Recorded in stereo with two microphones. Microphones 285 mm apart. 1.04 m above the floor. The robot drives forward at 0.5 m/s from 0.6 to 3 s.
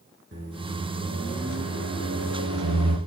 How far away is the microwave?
About 2.5 m.